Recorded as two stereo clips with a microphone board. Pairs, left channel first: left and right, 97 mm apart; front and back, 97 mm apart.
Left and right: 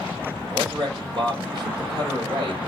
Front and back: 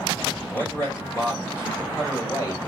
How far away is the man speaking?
About 1.7 m.